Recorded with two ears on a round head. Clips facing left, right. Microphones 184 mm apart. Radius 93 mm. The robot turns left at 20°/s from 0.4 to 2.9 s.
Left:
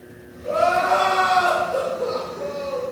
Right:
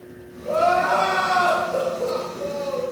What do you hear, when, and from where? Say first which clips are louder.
0.4 s crying: even; 50° left, 0.9 m; by 2.8 s straight ahead, 0.9 m